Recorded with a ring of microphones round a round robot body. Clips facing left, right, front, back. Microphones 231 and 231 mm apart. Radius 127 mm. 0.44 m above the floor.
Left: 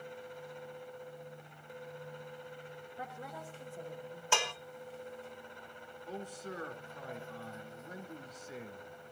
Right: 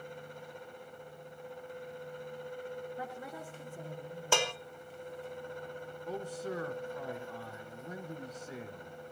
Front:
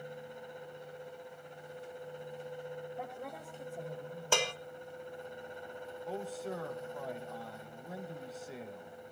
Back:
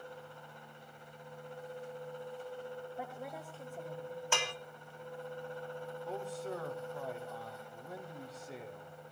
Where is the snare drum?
I don't hear a snare drum.